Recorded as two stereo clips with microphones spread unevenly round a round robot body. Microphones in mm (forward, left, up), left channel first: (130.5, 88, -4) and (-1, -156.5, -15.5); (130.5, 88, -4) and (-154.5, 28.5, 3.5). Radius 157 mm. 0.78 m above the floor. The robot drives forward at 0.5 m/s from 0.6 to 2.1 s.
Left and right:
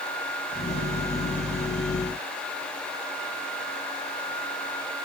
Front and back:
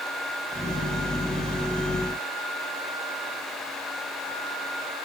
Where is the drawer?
I don't hear a drawer.